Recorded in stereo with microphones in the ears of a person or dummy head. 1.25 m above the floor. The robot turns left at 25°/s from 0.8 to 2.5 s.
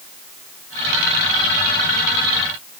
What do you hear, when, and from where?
Only background noise.